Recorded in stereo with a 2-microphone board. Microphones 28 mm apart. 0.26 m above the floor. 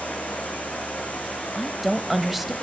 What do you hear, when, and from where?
0.0 s running water: 70° left (ahead or behind), 7 m
1.6 s a woman speaking: 5° right (ahead or behind), 1.0 m